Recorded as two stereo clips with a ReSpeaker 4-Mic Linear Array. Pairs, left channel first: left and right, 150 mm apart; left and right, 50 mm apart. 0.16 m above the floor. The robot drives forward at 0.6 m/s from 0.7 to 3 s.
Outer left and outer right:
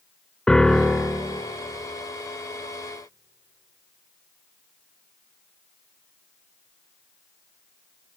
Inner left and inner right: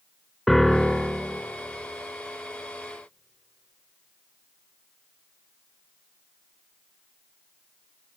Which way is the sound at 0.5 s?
5° left (ahead or behind).